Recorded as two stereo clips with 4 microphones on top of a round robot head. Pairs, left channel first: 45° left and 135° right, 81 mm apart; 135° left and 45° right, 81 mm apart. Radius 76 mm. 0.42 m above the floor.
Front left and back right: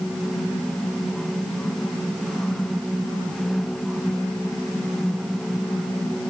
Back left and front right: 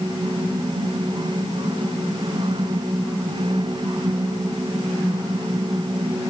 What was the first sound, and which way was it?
Only background noise.